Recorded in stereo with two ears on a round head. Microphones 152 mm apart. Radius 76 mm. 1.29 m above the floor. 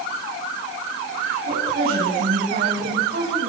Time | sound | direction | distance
1.5 | a woman speaking | 55° right (ahead or behind) | 9 m